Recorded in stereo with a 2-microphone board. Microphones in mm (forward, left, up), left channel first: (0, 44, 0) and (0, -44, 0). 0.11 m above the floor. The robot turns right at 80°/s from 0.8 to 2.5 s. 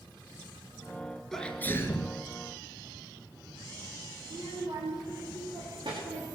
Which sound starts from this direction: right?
A child speaking, at 4.2 s.